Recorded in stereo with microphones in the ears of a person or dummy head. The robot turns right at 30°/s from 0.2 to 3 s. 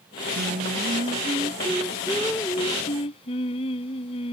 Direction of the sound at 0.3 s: 50° right.